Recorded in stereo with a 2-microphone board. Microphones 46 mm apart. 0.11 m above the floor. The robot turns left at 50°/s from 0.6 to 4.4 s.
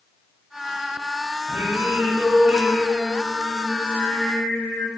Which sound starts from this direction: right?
Singing, at 1.5 s.